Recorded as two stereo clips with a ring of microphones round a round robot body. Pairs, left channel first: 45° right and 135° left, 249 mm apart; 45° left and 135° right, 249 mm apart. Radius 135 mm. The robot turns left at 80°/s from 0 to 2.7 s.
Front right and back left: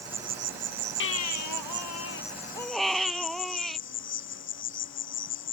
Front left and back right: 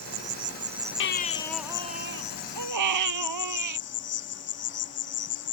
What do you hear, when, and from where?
0.0 s an insect: 145° right; by 5.5 s straight ahead
1.0 s a baby crying: straight ahead; by 3.8 s 135° right